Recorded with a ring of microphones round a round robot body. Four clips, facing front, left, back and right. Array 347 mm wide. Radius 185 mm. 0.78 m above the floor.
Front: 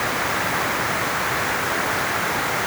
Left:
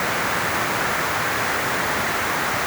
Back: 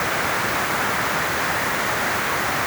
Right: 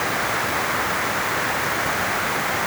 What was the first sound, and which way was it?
Only background noise.